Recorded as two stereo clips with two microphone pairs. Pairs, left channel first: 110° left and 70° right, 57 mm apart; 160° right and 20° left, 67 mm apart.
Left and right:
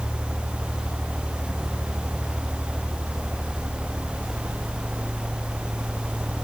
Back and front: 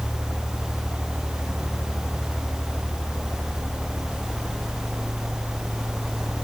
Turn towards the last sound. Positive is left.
No sound to turn to.